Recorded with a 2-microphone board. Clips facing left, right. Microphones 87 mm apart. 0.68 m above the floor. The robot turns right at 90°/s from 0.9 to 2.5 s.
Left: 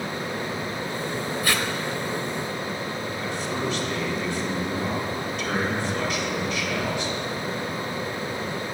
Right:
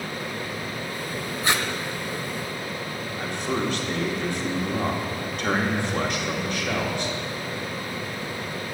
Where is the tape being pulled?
30° right (ahead or behind), 0.6 m; by 1.7 s 10° right (ahead or behind), 0.6 m.